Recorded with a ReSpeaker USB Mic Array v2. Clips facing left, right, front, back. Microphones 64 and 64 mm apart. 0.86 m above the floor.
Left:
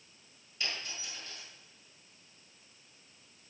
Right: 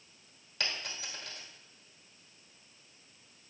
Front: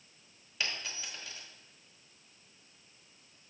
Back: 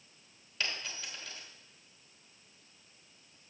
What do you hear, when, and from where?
0.6 s a dropped coin: 80° right, 3 m